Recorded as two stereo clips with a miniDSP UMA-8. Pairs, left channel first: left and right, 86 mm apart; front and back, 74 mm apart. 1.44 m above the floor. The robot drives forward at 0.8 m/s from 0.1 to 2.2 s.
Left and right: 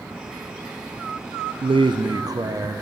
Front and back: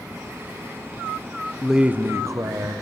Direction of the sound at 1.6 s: 85° right.